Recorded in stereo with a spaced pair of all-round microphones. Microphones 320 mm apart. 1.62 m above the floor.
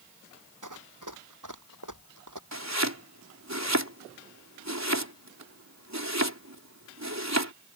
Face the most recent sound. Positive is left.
turn(degrees=-55)  # may be behind; listen again after turning